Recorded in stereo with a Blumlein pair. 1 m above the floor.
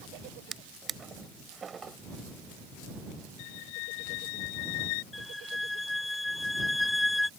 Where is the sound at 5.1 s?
5° left.